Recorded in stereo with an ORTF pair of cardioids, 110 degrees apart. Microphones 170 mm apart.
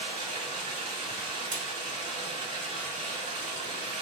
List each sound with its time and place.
0.0 s running water: 50° right, 1.4 m
1.5 s scissors: 50° right, 1.4 m